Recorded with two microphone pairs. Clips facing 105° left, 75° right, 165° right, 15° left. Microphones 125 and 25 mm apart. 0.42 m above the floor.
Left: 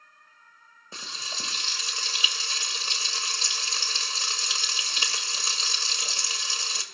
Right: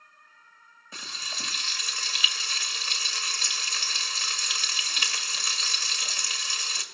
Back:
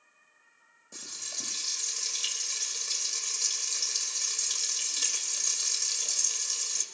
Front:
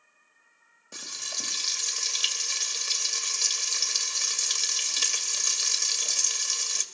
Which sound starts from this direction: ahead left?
Frying, at 0.9 s.